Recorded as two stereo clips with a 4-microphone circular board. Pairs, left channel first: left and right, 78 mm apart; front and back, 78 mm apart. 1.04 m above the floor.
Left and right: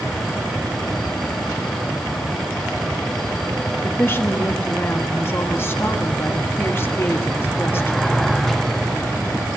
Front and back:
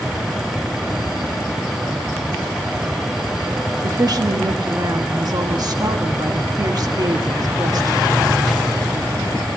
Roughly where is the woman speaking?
Behind left.